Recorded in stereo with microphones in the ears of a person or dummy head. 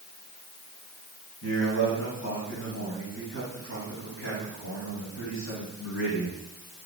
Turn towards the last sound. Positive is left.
turn(degrees=80)